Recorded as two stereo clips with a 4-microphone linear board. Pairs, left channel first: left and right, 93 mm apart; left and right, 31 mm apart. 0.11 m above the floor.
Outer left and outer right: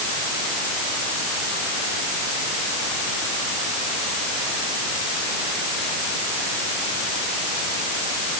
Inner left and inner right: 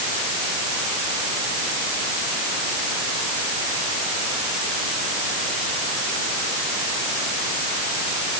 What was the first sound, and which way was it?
Only background noise.